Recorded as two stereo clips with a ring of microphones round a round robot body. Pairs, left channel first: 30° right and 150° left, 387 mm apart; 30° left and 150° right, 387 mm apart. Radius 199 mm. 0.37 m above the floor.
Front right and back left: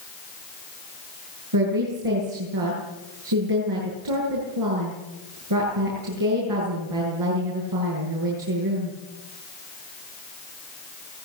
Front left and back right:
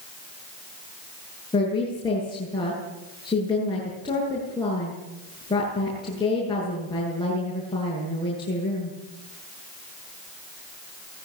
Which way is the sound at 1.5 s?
110° left.